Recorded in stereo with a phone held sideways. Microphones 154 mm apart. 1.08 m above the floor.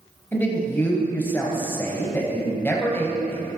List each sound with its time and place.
0.3 s a man speaking: 15° left (ahead or behind), 1.1 m